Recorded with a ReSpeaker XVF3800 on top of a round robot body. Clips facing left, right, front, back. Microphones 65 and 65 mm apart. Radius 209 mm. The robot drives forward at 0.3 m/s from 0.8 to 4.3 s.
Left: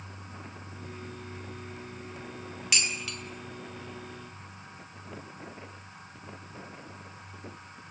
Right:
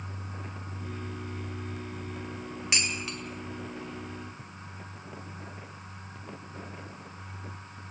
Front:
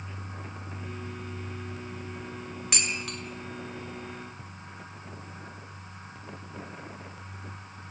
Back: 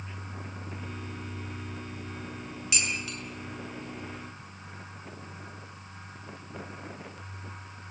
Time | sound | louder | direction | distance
2.7 | dishes clattering | even, back 1 dB | 35° right | 5 m